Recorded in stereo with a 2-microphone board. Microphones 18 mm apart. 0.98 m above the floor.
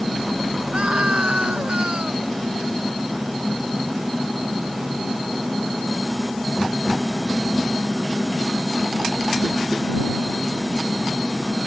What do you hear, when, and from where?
0.7 s a scream: 85° right